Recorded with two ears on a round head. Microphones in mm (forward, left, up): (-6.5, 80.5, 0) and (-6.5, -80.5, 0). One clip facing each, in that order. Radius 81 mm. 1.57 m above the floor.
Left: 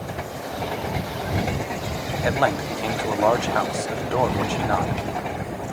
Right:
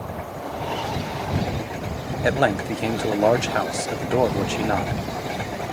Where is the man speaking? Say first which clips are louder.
Right 2 dB; 25° right (ahead or behind).